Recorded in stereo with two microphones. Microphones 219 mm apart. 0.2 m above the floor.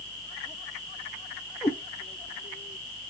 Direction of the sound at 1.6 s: 10° left (ahead or behind).